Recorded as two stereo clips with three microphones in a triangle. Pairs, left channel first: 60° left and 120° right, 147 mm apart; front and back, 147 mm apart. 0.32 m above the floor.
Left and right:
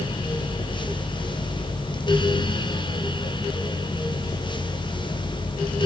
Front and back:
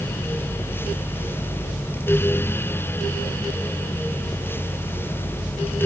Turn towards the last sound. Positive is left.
No sound to turn to.